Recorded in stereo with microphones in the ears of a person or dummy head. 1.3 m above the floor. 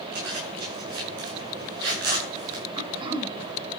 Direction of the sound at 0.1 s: 60° right (ahead or behind).